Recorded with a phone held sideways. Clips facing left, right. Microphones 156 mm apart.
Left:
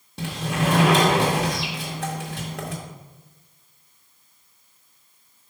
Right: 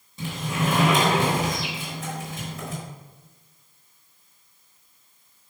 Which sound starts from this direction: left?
A sliding door, at 0.2 s.